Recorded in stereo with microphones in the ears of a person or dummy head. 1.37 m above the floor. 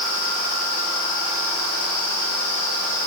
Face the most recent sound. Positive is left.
No sound to turn to.